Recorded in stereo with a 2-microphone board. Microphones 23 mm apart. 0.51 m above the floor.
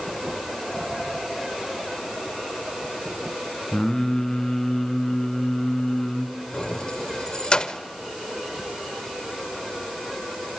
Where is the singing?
25° left (ahead or behind), 2 m.